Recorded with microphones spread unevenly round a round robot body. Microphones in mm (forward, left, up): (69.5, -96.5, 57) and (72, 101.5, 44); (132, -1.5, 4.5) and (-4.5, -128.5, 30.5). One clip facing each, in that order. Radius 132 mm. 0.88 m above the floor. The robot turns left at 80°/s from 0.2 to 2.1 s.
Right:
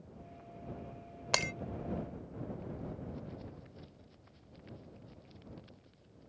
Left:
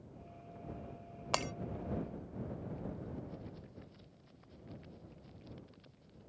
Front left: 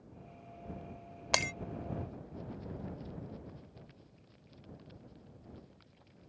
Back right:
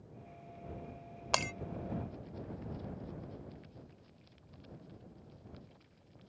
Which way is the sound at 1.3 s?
35° right.